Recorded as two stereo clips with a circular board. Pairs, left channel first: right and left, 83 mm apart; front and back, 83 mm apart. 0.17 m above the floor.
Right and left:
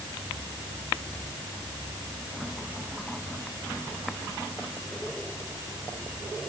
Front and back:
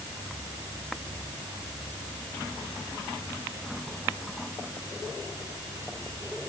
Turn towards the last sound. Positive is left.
No sound to turn to.